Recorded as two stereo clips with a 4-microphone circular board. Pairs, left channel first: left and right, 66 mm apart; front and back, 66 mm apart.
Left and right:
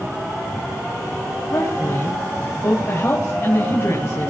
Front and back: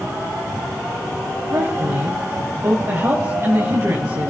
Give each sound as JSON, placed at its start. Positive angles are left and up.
{"t": 1.5, "sound": "a woman speaking", "azimuth_deg": 140, "distance_m": 3.5}